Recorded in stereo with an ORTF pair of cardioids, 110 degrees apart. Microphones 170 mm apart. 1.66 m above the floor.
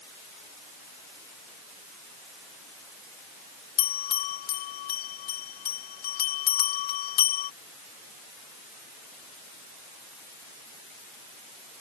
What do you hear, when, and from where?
3.8 s a bell: 65° left